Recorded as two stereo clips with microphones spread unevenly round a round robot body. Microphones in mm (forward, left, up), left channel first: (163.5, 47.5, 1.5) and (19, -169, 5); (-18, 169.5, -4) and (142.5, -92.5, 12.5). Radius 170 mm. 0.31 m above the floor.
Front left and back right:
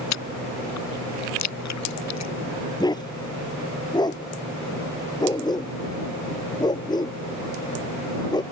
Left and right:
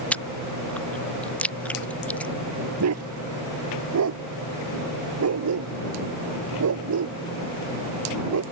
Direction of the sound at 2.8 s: 20° right.